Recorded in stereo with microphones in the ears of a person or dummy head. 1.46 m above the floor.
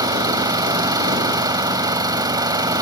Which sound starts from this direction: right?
An engine running, at 0.0 s.